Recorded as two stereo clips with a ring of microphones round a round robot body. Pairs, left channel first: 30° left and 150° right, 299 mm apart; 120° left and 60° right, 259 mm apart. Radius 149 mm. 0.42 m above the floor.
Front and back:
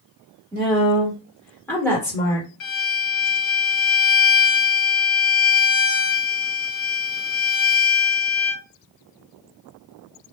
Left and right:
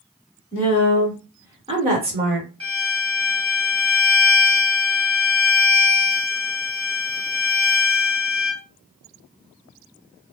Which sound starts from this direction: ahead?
A violin, at 2.6 s.